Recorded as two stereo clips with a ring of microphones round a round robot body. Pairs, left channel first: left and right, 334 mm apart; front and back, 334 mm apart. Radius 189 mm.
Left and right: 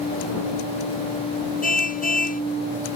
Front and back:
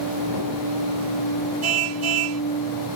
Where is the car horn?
155° left.